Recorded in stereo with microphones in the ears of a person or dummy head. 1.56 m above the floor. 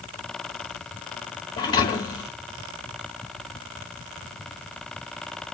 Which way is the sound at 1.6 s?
25° left (ahead or behind).